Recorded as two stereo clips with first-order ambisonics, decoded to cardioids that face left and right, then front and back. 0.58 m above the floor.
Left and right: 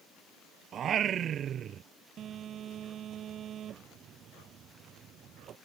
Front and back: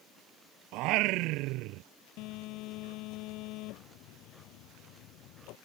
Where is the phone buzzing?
35° right.